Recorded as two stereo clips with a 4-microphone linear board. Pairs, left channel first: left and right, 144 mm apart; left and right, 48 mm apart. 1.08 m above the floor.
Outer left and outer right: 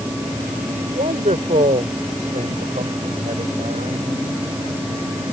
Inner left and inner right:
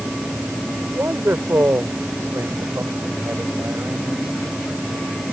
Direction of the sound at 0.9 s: 60° right (ahead or behind).